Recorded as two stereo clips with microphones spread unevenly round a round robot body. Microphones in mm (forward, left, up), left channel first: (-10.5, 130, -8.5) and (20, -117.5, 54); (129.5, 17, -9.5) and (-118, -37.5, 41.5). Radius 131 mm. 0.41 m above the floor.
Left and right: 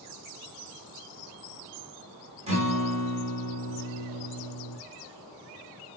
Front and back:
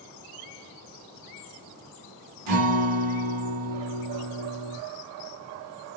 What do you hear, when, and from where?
2.5 s a guitar: 155° right, 1.5 m